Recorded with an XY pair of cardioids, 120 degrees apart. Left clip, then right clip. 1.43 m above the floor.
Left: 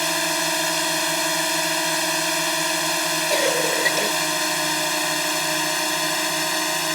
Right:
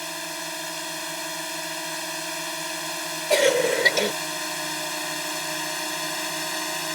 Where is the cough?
25° right.